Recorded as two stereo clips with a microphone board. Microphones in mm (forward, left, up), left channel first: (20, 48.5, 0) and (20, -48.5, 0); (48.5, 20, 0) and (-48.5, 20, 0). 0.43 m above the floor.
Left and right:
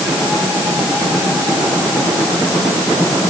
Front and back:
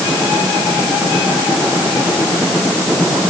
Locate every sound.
Only background noise.